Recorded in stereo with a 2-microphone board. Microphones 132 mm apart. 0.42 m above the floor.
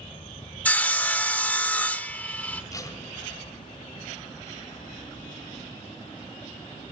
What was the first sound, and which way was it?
Sawing, 10° left (ahead or behind).